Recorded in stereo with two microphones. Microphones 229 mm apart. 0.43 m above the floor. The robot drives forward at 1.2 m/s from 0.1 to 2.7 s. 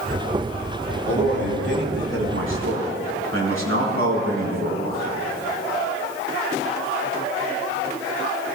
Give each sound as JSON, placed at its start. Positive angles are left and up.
{"t": 1.1, "sound": "a man speaking", "side_deg": -50, "distance_m": 5.5}